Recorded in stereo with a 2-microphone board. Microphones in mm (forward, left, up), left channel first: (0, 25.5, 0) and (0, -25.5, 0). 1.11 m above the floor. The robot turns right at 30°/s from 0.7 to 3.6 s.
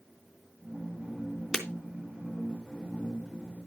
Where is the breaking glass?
5° right (ahead or behind), 3 m.